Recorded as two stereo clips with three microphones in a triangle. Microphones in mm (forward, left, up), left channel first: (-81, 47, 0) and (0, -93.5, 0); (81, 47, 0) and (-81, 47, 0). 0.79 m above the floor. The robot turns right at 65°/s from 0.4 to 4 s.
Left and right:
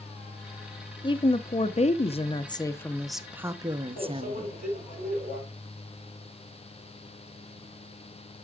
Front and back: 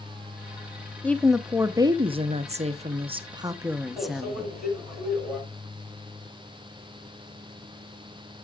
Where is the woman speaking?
75° left, 0.7 m; by 4.5 s 95° right, 0.7 m.